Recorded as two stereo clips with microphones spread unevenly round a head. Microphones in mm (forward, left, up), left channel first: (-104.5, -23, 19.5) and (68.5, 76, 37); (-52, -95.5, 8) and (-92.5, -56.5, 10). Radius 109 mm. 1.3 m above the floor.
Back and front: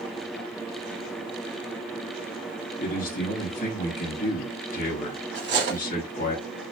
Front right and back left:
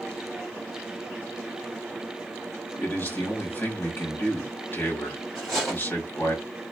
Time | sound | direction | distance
2.8 | a man speaking | 95° right | 1.6 m
5.3 | cutlery clinking | 45° left | 1.1 m